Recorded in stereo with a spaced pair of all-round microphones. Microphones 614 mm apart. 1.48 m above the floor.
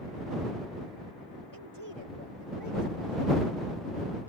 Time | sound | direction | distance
1.5 | a woman speaking | 35° right (ahead or behind) | ?